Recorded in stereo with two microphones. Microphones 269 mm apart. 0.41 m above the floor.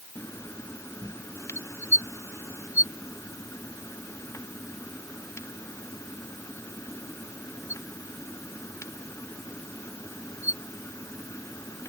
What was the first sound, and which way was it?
Only background noise.